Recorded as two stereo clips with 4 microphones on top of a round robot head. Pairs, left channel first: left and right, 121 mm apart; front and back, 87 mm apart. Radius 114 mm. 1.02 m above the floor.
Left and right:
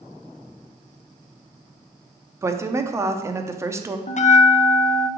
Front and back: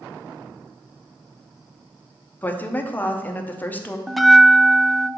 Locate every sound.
2.4 s a woman speaking: 45° right, 0.8 m
4.1 s a bell: 90° left, 0.5 m